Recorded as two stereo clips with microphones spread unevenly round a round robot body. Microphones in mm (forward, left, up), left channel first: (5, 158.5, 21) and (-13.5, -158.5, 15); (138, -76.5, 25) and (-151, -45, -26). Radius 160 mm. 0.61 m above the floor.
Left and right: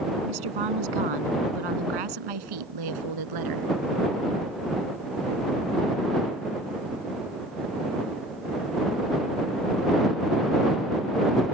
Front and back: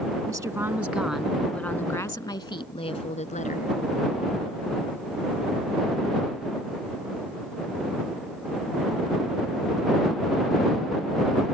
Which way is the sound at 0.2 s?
110° right.